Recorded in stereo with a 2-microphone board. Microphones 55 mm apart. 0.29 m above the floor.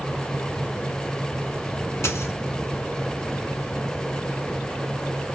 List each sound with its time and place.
2.0 s a dropped coin: 55° left (ahead or behind), 1.2 m